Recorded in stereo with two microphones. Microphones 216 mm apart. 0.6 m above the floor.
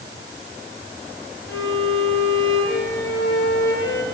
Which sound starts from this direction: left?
A violin, at 1.5 s.